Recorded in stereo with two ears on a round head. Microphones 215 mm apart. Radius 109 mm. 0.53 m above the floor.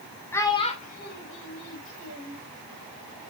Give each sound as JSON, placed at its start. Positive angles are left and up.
{"t": 0.3, "sound": "a child speaking", "side_deg": 10, "distance_m": 1.3}